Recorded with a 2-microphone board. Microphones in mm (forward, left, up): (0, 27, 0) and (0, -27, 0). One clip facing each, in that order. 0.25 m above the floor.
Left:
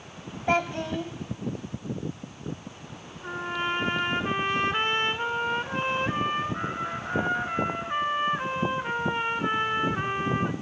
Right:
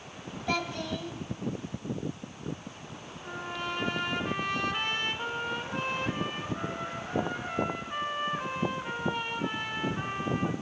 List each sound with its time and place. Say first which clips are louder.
0.5 s a child speaking: left 6 dB; 35° left (ahead or behind), 1.1 m
3.2 s a trumpet: left 6 dB; 40° left (ahead or behind), 1.2 m